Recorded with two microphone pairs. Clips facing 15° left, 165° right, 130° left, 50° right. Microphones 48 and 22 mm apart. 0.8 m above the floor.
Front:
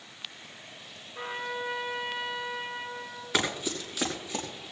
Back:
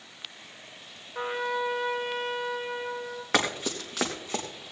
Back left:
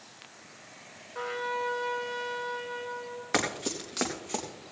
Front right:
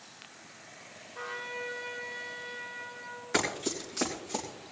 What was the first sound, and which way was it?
A trumpet, 165° left.